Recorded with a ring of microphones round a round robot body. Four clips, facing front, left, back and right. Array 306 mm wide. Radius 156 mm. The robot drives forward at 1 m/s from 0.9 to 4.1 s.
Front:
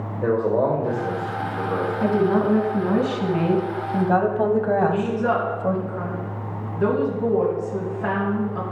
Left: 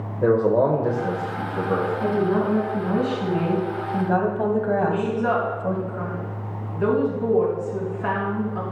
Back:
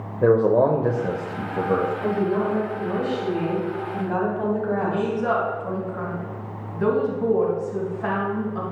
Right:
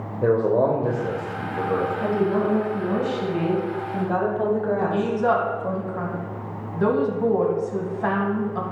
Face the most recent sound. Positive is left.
turn(degrees=-90)